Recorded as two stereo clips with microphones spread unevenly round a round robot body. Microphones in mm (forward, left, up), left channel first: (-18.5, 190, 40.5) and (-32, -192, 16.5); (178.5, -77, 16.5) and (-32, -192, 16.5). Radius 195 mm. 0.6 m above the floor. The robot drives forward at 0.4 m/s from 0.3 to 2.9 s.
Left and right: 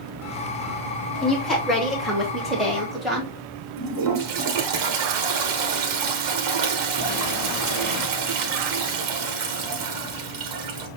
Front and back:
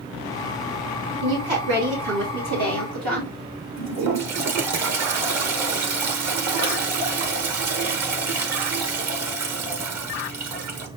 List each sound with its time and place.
1.2 s a woman speaking: straight behind, 2 m
3.8 s a toilet flushing: 135° right, 1.0 m